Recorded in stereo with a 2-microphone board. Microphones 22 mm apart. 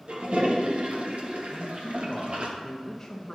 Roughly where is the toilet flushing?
Right.